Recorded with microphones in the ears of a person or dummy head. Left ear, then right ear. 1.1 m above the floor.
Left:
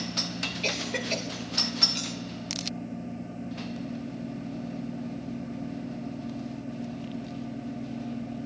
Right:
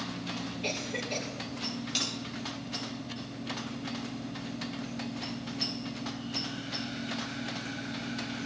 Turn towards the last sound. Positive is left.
turn(degrees=-30)  # may be behind; listen again after turning